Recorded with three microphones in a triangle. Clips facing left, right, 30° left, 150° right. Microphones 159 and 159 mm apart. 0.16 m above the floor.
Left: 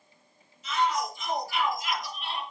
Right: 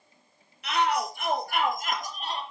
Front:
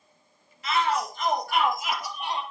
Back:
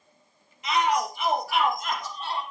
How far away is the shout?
About 5 m.